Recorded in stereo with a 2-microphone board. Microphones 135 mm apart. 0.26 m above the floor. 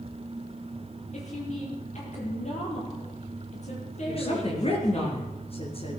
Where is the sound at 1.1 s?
55° left (ahead or behind), 8 m.